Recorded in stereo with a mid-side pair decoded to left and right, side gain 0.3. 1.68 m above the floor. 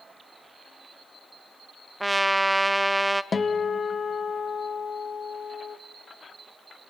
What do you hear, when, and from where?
2.0 s a trumpet: 15° right, 0.5 m
3.3 s a guitar: 45° left, 1.0 m